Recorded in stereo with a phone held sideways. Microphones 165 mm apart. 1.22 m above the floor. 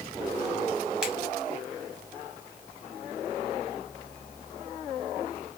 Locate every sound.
1.0 s a finger snap: 5° right (ahead or behind), 1.8 m